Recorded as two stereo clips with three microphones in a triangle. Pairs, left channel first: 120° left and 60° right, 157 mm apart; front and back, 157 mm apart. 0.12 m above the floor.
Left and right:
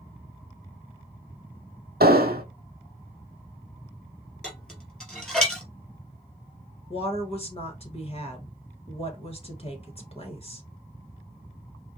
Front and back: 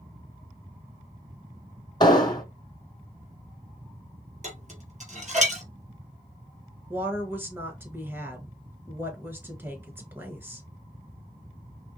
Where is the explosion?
60° right, 1.0 m.